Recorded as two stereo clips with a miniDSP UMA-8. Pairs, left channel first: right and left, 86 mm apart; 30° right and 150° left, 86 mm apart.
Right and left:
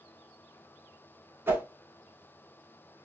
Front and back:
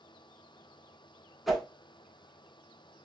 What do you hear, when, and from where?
1.5 s a whoosh: 60° left, 0.7 m